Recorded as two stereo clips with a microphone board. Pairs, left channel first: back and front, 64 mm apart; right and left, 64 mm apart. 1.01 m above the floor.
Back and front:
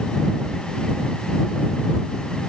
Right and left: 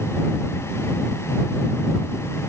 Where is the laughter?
I don't hear laughter.